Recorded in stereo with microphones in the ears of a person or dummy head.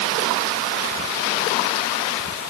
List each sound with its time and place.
Only background noise.